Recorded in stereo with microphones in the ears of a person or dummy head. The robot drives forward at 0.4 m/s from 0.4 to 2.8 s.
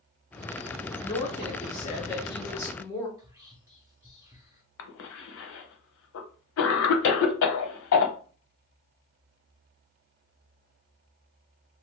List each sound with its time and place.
1.0 s a woman speaking: 20° left (ahead or behind), 0.6 m; by 3.1 s 15° left (ahead or behind), 0.7 m
3.2 s whispering: 15° right (ahead or behind), 0.7 m
4.8 s a cough: 75° left (ahead or behind), 0.7 m